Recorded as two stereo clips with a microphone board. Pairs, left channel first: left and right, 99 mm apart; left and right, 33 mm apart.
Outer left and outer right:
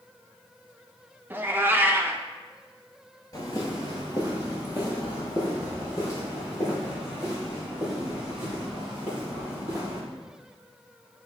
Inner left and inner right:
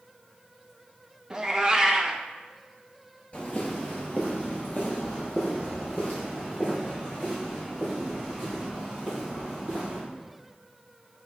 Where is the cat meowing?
20° right (ahead or behind), 0.6 m.